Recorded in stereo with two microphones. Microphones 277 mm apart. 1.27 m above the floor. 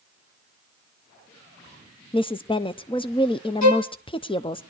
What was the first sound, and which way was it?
A woman speaking, 20° left (ahead or behind).